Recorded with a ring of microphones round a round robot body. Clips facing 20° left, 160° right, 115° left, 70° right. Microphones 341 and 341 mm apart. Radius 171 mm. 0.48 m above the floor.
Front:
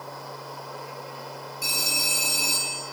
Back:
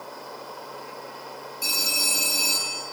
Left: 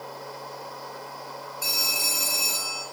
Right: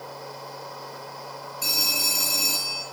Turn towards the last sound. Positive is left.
turn(degrees=-65)